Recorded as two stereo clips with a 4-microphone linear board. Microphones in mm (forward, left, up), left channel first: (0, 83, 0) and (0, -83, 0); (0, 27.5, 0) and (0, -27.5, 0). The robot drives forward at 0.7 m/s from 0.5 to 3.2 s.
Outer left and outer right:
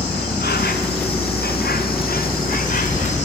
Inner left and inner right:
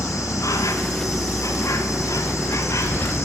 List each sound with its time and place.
0.0 s an insect: 85° left, 2 m; by 3.2 s 50° left (ahead or behind), 3 m